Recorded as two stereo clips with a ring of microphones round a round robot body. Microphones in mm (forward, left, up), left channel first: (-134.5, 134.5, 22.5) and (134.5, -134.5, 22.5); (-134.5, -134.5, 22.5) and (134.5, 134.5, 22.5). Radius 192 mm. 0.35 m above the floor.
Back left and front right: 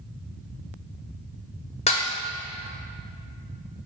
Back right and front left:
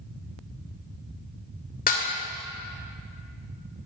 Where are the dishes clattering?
170° right, 0.8 m.